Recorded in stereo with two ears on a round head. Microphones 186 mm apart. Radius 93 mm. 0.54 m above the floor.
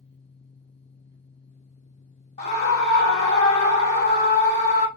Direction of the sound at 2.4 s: 30° left (ahead or behind).